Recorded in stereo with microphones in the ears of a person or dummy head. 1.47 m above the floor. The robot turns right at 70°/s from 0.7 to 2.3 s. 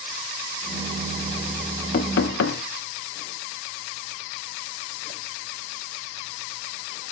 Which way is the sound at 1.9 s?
40° left (ahead or behind).